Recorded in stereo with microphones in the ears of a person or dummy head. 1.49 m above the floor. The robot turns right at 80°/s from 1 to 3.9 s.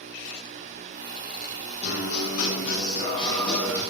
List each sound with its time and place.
1.8 s a guitar: 40° left, 7.5 m; by 3.8 s 160° right, 7.5 m